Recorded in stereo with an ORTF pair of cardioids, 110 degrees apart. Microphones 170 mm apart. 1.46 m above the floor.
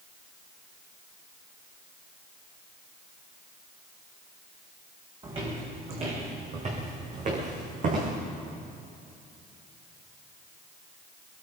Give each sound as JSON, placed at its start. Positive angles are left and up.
{"t": 5.2, "sound": "footsteps", "azimuth_deg": -30, "distance_m": 6.0}